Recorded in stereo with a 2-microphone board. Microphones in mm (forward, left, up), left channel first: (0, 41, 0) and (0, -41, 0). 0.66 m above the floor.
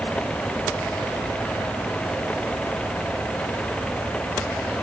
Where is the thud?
I don't hear a thud.